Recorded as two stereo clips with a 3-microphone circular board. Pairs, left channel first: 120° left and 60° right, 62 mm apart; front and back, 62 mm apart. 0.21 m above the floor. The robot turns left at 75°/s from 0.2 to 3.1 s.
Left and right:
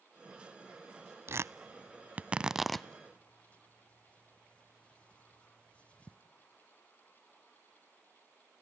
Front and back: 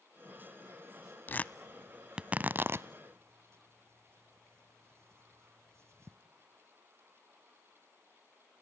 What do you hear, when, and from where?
1.3 s tearing paper: 45° right, 0.5 m; by 6.2 s straight behind, 0.5 m